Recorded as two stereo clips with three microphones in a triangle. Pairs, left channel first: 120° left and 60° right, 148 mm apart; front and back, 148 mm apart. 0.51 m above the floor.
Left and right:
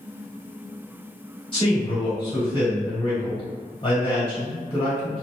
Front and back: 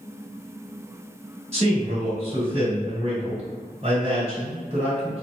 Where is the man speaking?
160° left, 1.7 m.